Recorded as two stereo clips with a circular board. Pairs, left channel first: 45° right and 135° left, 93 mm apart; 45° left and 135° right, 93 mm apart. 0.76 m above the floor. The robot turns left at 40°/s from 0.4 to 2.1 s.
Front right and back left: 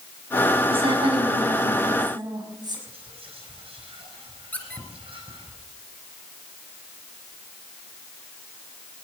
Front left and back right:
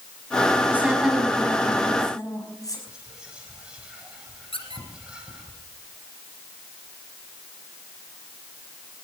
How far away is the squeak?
About 3 m.